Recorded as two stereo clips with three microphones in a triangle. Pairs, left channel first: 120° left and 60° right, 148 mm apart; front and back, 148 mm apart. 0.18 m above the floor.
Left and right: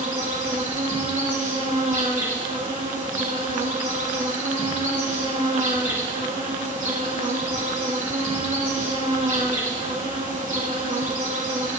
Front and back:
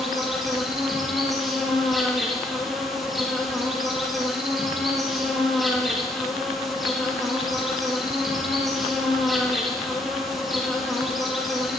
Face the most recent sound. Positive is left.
turn(degrees=-90)